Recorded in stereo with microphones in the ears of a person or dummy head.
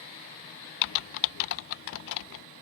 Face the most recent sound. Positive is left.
turn(degrees=70)  # may be behind; listen again after turning